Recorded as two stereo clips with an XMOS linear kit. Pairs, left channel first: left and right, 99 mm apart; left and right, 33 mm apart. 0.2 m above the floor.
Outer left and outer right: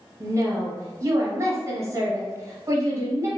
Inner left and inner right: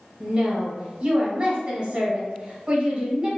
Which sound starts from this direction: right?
A woman speaking, at 0.2 s.